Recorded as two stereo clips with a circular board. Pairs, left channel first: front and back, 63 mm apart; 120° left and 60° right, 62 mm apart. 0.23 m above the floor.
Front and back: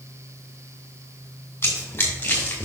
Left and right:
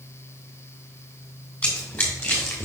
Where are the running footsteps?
55° left, 3 m; by 2.6 s 65° left, 3 m.